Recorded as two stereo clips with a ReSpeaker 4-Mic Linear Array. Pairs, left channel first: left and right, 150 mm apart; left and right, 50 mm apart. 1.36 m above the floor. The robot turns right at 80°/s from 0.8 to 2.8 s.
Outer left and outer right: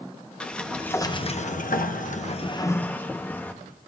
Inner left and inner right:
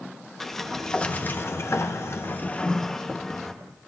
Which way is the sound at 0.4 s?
5° left.